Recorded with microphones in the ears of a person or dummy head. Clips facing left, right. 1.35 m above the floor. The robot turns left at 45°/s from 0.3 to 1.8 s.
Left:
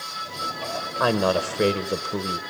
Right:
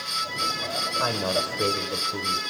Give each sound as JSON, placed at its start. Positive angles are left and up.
{"t": 1.0, "sound": "a woman speaking", "azimuth_deg": 130, "distance_m": 0.8}